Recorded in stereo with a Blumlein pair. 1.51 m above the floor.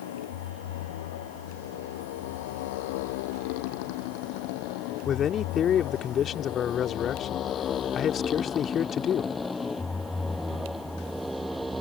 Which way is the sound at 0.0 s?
55° left.